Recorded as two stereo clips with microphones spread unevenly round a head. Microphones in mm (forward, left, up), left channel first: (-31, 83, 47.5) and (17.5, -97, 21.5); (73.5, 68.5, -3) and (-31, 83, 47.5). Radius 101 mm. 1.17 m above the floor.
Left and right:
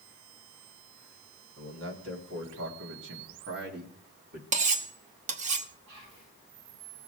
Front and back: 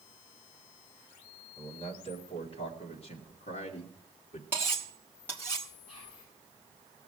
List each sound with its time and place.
1.6 s a man speaking: 65° right, 2.5 m; by 4.4 s 30° right, 2 m
4.5 s cutlery clinking: 130° right, 0.9 m
5.9 s whispering: 95° right, 8 m